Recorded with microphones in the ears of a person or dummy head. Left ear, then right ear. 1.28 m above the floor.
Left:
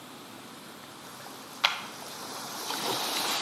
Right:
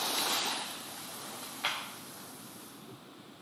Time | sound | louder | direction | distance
1.6 | a clap | left 7 dB | 35° left (ahead or behind) | 0.8 m